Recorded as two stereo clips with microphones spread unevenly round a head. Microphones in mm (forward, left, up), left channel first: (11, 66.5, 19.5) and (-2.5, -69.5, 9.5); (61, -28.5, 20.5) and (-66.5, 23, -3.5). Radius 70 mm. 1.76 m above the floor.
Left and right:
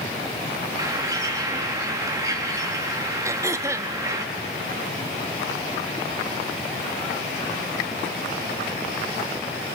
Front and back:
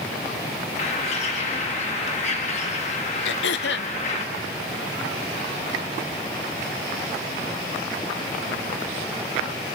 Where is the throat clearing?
25° right, 0.7 m.